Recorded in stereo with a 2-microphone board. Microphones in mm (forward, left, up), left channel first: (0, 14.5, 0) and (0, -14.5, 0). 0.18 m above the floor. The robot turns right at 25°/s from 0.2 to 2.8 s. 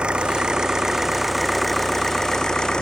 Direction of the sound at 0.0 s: 40° right.